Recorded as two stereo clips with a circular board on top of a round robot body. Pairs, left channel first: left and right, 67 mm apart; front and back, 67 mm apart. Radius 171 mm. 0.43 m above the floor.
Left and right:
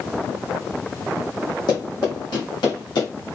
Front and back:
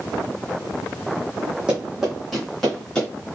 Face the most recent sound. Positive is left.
turn(degrees=80)